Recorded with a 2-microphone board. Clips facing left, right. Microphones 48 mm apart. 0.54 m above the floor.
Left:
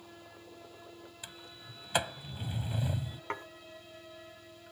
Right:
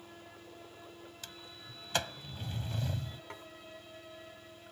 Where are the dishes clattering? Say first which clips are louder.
Left 9 dB; 50° left (ahead or behind).